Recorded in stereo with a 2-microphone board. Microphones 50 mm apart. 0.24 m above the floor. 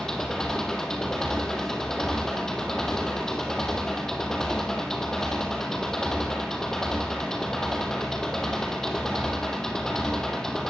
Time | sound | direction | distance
0.0 | an engine running | 10° left (ahead or behind) | 3 m